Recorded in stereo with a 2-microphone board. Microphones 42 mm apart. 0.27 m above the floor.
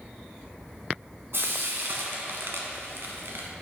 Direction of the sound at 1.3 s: 65° right (ahead or behind).